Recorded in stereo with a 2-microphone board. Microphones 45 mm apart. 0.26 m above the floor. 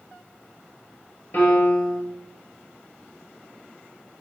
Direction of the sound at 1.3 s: 55° left (ahead or behind).